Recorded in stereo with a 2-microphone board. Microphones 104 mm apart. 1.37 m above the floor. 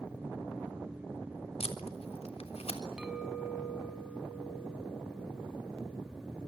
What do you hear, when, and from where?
1.6 s tape being pulled: 85° left, 3.5 m
3.0 s a clink: 10° right (ahead or behind), 6.5 m